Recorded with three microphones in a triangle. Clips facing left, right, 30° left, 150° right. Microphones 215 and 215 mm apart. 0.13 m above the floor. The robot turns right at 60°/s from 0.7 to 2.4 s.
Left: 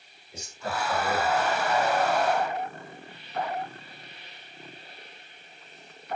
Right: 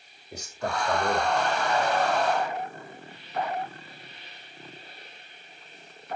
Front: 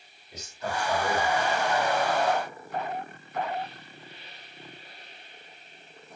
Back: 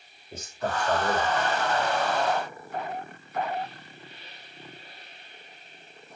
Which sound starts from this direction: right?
A man speaking, at 0.3 s.